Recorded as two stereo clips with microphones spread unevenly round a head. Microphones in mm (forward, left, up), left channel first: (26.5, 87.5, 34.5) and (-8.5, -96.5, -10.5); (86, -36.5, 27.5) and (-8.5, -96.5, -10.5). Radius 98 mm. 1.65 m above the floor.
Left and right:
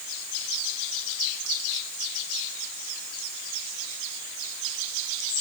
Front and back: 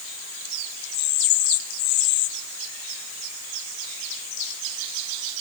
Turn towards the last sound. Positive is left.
No sound to turn to.